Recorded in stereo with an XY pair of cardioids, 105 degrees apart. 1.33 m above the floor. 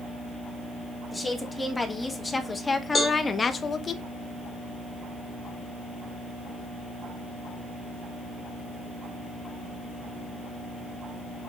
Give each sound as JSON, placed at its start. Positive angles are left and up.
{"t": 1.1, "sound": "a woman speaking", "azimuth_deg": 10, "distance_m": 3.0}
{"t": 3.0, "sound": "a cowbell", "azimuth_deg": 30, "distance_m": 1.9}